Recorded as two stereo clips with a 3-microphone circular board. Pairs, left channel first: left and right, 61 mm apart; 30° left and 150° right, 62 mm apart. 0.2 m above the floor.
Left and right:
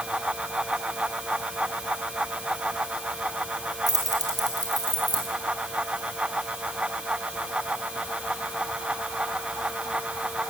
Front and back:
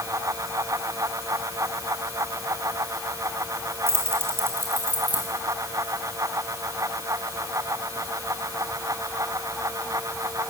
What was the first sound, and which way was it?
Keys jangling, 100° right.